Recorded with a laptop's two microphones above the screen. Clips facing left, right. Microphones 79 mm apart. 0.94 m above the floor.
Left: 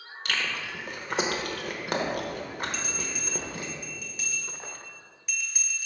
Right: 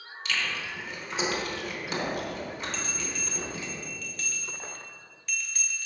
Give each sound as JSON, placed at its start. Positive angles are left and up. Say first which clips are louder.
{"t": 0.2, "sound": "chewing", "louder": "left 1 dB", "side_deg": 50, "distance_m": 0.9}
{"t": 2.7, "sound": "a bell", "louder": "even", "side_deg": 10, "distance_m": 1.2}